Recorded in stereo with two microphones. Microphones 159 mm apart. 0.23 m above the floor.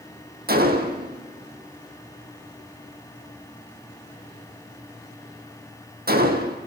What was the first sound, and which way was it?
A gunshot, 75° right (ahead or behind).